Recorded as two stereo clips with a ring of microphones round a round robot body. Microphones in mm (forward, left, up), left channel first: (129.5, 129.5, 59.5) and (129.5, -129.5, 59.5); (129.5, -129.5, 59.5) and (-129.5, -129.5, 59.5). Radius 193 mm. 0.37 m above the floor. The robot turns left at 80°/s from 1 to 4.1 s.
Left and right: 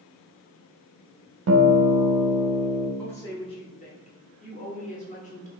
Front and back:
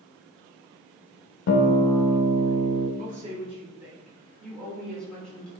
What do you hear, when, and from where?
1.5 s a guitar: 45° right, 0.5 m; by 2.9 s 160° right, 0.5 m
3.0 s a woman speaking: 170° left, 1.2 m; by 5.5 s 80° left, 1.2 m